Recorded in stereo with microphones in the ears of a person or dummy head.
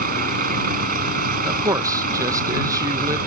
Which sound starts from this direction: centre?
A man speaking, at 1.4 s.